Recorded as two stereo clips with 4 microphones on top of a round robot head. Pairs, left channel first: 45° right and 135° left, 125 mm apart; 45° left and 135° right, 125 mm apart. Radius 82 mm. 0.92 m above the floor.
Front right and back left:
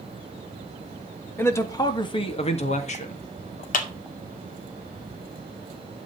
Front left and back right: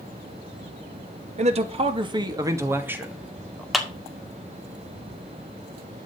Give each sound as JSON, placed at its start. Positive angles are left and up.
{"t": 1.4, "sound": "a man speaking", "azimuth_deg": -115, "distance_m": 1.9}
{"t": 3.7, "sound": "a clap", "azimuth_deg": -50, "distance_m": 2.0}